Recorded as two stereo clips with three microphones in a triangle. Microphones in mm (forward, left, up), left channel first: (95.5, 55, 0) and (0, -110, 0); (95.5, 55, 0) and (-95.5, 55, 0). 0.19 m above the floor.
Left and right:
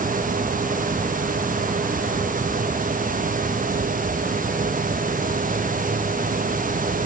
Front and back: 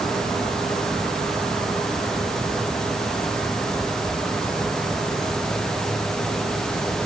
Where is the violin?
No violin in this recording.